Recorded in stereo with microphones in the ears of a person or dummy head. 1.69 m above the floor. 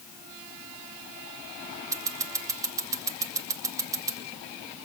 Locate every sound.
1.9 s scissors: 25° right (ahead or behind), 4.5 m